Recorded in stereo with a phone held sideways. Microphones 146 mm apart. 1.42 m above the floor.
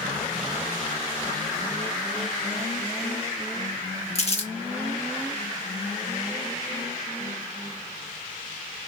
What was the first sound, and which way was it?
Crumpling, 45° left (ahead or behind).